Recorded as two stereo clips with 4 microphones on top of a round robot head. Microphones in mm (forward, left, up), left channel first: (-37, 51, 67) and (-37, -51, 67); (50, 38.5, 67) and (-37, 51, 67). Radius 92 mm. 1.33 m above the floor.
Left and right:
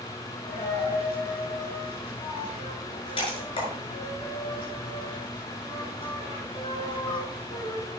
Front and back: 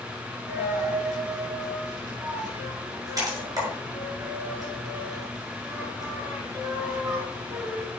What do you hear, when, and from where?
0.5 s a dropped coin: 125° left, 6.5 m